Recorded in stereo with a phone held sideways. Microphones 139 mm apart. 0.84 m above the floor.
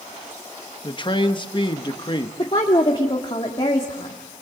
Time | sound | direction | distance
0.8 | a man speaking | 35° left (ahead or behind) | 1.3 m
2.4 | a woman speaking | 40° left (ahead or behind) | 1.8 m